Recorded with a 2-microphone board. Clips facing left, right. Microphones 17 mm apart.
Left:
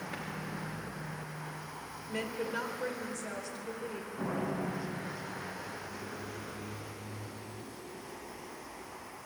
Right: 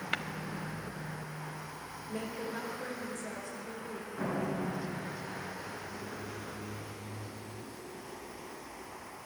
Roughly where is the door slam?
Right.